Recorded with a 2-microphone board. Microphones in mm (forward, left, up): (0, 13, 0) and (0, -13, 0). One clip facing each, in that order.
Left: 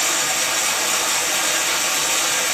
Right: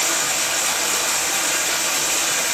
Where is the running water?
20° left (ahead or behind), 4.5 m.